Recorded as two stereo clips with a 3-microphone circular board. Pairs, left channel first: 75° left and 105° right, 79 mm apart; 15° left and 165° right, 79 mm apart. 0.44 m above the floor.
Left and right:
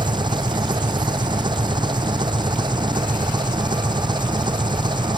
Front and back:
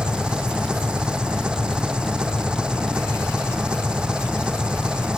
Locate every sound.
0.0 s an engine running: 85° right